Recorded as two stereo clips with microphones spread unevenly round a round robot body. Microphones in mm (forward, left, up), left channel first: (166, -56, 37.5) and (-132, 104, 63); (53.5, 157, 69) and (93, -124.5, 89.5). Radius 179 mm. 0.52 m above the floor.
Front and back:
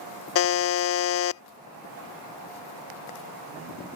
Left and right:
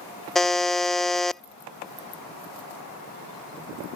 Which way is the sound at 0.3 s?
10° left.